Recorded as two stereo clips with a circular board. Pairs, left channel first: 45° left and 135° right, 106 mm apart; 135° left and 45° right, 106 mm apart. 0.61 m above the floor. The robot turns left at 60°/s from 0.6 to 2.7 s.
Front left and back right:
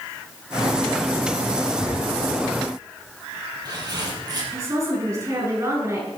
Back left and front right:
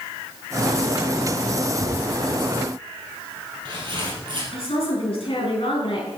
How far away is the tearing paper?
About 4.5 m.